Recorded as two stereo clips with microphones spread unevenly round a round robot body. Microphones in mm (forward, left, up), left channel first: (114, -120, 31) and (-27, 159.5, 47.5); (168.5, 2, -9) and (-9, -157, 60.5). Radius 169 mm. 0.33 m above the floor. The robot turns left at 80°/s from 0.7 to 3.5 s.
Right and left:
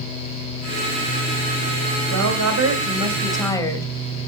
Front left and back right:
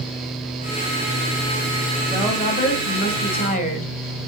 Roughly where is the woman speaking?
Behind left.